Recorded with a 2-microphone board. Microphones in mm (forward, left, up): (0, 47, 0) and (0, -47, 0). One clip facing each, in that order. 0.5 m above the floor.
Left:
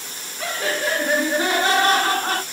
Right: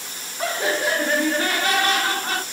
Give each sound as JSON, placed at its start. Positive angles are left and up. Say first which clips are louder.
{"t": 0.4, "sound": "laughter", "louder": "right 2 dB", "side_deg": -30, "distance_m": 0.9}